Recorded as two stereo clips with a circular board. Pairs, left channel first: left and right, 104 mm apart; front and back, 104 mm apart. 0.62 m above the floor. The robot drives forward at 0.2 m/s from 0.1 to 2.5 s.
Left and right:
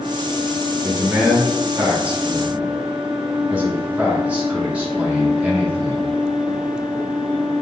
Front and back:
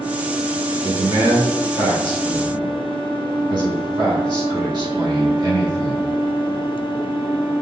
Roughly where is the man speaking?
Behind right.